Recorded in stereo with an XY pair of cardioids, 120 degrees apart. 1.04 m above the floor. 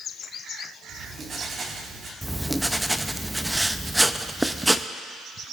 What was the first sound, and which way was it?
Writing, 35° right.